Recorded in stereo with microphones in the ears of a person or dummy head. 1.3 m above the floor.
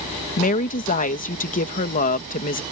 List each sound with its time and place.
0.4 s a woman speaking: 40° left (ahead or behind)